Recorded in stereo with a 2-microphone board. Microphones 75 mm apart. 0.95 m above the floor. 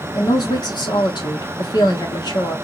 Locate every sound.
0.1 s a woman speaking: 70° left (ahead or behind), 1.9 m